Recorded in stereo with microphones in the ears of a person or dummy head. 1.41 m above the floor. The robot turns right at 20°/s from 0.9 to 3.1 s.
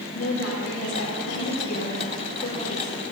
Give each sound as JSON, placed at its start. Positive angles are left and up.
{"t": 0.1, "sound": "a woman speaking", "azimuth_deg": 100, "distance_m": 3.5}